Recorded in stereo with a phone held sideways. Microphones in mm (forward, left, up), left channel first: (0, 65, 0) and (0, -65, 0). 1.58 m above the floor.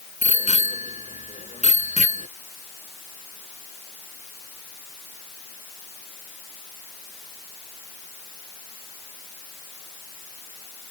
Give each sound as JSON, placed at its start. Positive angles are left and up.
{"t": 0.2, "sound": "a bicycle bell", "side_deg": 60}